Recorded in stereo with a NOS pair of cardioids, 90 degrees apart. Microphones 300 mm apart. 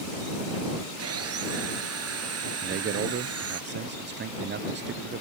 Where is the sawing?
55° right.